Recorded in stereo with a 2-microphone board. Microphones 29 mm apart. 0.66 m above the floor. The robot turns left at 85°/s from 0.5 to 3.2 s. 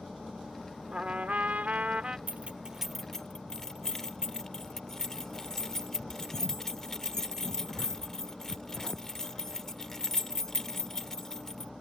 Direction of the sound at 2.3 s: 60° right (ahead or behind).